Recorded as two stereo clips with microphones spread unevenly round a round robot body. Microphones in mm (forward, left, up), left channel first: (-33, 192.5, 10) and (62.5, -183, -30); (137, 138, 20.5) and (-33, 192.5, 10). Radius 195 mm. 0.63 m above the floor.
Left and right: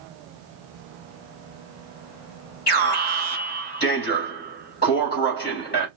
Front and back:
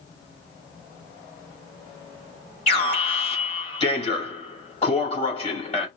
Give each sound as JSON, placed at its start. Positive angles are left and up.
{"t": 2.7, "sound": "an alarm", "azimuth_deg": 35, "distance_m": 4.0}